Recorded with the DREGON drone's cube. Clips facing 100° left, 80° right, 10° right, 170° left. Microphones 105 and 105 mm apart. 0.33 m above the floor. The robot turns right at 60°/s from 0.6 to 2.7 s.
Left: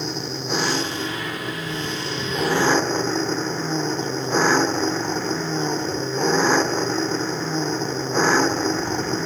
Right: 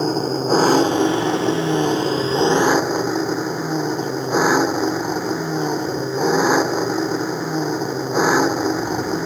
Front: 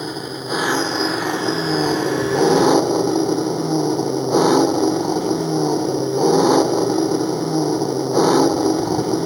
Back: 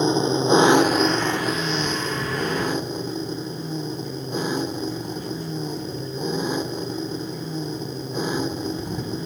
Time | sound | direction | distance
0.0 | an engine running | 125° right | ?